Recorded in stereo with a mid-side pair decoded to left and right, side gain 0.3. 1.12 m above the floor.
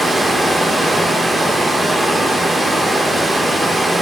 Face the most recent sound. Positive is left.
turn(degrees=-25)